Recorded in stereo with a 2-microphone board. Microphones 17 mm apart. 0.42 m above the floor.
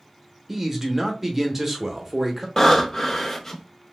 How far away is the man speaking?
About 0.8 m.